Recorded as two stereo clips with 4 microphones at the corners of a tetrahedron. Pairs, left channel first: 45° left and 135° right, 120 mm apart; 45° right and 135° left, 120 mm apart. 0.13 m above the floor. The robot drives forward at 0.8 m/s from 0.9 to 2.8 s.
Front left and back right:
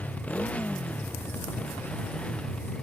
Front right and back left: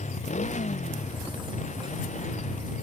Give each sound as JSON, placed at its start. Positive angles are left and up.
{"t": 0.0, "sound": "a motorcycle", "azimuth_deg": -35}